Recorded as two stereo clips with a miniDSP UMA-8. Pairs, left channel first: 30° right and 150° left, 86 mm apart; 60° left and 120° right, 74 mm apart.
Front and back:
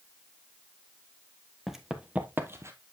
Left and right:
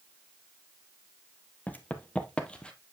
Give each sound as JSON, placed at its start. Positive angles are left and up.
{"t": 1.7, "sound": "running footsteps", "azimuth_deg": 65, "distance_m": 1.0}